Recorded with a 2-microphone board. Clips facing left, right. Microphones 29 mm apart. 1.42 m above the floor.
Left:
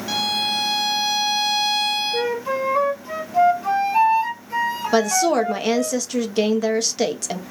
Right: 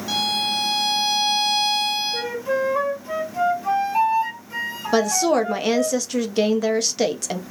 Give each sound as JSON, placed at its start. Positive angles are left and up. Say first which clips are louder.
{"t": 0.1, "sound": "a violin", "louder": "even", "side_deg": 10, "distance_m": 0.8}
{"t": 2.1, "sound": "a flute", "louder": "left 1 dB", "side_deg": 25, "distance_m": 1.6}
{"t": 4.9, "sound": "a woman speaking", "louder": "even", "side_deg": -5, "distance_m": 0.6}